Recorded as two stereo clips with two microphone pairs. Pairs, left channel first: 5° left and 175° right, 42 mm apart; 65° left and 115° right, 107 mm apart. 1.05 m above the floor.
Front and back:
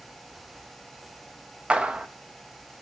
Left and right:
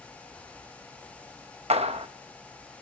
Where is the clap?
115° right, 0.9 m.